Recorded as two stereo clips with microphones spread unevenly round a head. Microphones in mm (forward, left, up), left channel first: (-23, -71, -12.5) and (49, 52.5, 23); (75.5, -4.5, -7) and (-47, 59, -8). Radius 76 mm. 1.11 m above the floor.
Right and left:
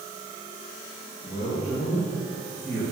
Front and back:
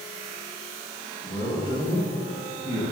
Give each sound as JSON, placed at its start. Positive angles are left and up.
{"t": 1.2, "sound": "a man speaking", "azimuth_deg": -135, "distance_m": 5.0}